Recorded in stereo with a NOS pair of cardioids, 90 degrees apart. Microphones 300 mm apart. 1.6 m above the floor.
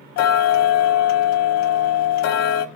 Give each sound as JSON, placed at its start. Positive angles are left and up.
{"t": 0.2, "sound": "ticking", "azimuth_deg": 70, "distance_m": 0.6}